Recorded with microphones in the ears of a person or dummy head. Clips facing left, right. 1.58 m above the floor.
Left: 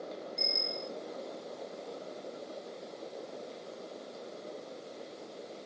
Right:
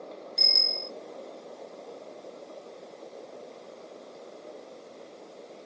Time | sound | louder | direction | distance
0.4 | a bicycle bell | even | 70° right (ahead or behind) | ?